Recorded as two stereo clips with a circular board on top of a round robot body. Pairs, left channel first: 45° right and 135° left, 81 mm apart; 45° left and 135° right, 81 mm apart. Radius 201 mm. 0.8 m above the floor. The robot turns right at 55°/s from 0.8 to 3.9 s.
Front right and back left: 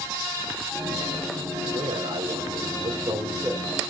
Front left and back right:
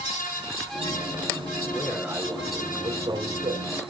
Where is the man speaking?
105° left, 4 m; by 3.6 s 150° right, 4 m.